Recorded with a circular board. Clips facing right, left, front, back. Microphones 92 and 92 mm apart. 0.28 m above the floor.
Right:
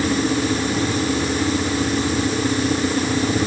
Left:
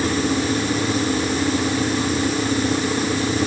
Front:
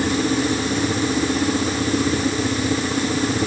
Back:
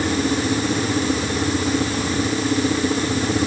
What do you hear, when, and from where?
Only background noise.